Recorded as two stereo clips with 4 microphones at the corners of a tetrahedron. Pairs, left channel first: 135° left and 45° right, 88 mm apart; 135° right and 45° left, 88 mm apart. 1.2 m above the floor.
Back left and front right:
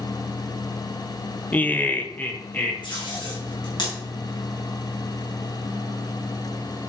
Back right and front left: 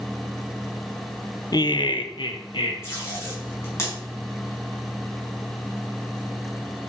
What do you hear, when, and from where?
1.5 s laughter: 160° right, 0.5 m; by 2.7 s 155° right, 2.0 m
2.8 s tape being pulled: 165° left, 4.5 m